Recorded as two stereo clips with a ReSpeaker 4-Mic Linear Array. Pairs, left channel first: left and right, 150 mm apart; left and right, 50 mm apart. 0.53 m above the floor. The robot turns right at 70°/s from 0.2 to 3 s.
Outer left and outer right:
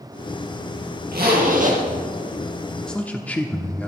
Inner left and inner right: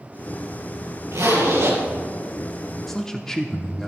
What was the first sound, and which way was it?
A zipper, 95° right.